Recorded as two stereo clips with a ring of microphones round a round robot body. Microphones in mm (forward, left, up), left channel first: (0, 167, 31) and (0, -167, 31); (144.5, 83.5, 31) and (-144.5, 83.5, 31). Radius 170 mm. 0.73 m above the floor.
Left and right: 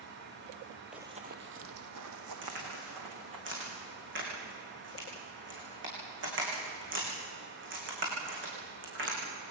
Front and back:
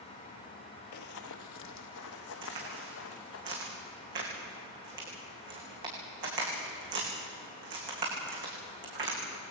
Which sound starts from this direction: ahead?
Running footsteps, at 0.9 s.